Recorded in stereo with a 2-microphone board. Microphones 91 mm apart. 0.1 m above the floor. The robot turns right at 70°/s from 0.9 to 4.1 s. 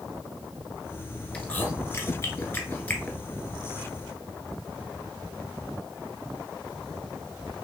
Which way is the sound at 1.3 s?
15° left (ahead or behind).